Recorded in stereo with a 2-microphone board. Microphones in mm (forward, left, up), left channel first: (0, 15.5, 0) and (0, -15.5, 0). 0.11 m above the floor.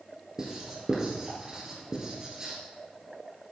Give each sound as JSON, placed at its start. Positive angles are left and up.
{"t": 0.4, "sound": "writing", "side_deg": -25, "distance_m": 2.0}